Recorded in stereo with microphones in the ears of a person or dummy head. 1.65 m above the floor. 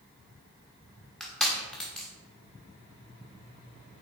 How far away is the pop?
No pop in this recording.